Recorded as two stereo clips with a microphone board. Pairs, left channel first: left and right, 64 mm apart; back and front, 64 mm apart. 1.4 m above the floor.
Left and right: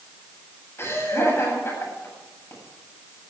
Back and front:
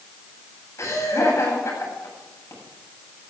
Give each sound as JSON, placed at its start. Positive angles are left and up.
{"t": 0.8, "sound": "laughter", "azimuth_deg": 140, "distance_m": 9.0}